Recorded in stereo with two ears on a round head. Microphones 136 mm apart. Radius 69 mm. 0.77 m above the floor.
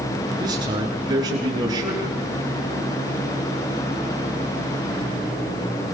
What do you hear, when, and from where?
0.4 s a man speaking: 30° right (ahead or behind), 9.5 m